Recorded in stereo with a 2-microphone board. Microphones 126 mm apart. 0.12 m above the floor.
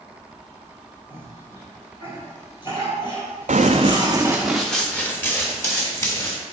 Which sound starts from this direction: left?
A cough, at 1.1 s.